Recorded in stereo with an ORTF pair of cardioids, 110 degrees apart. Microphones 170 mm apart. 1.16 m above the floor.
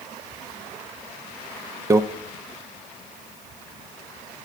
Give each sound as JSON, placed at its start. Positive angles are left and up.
{"t": 1.9, "sound": "a microwave", "azimuth_deg": -20, "distance_m": 0.5}